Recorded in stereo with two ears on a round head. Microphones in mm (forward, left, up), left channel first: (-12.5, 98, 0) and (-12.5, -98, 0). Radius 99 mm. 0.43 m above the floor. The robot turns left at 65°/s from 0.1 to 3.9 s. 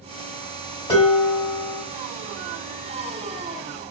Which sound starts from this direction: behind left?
Dishes clattering, at 0.9 s.